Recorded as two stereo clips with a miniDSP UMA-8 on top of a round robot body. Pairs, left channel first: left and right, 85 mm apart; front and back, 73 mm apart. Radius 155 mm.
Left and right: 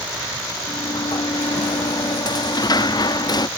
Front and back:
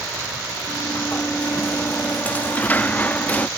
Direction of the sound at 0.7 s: 65° left.